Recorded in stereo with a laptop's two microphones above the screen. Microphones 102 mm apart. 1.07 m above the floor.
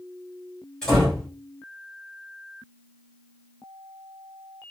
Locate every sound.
0.8 s a door slam: 10° left (ahead or behind), 3 m